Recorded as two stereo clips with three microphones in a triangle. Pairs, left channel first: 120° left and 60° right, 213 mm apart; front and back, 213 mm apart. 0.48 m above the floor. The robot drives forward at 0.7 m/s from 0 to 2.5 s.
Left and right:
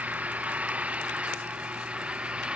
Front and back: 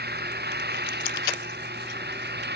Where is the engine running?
145° right.